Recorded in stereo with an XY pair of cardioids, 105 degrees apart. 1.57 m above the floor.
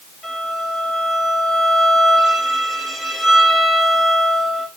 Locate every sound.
0.2 s a violin: 20° left, 4 m